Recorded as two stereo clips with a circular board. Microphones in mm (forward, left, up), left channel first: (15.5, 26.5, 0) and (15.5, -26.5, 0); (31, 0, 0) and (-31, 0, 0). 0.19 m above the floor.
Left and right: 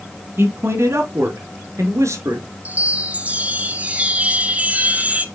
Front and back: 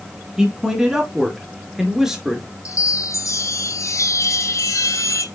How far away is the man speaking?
About 2.5 m.